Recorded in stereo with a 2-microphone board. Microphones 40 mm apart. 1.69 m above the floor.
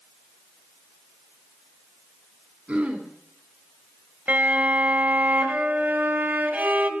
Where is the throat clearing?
30° right (ahead or behind), 3.5 m.